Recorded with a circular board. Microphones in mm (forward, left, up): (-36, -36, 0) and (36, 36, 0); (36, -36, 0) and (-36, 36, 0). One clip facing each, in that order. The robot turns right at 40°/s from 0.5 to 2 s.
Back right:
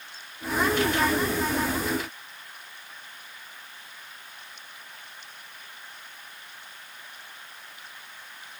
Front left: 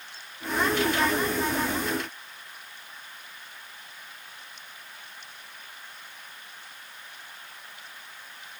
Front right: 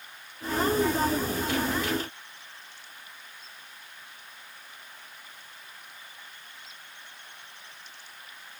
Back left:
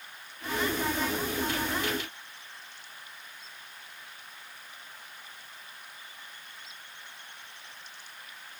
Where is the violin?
No violin in this recording.